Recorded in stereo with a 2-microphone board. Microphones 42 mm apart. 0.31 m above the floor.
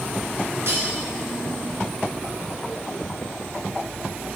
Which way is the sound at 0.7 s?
65° right (ahead or behind).